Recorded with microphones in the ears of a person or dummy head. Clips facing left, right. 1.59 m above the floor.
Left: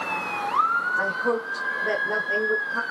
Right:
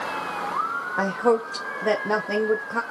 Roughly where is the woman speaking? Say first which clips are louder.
Right 5 dB; right.